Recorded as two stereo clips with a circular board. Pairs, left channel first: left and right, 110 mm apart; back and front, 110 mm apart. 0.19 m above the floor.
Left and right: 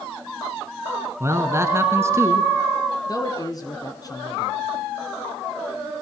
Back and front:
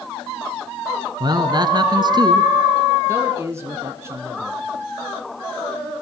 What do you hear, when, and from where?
1.2 s a man speaking: 35° right, 2 m
3.1 s a man speaking: 55° left, 1.6 m